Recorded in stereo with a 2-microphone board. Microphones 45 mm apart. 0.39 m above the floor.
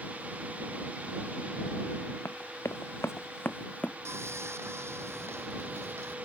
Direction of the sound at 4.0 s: 70° right (ahead or behind).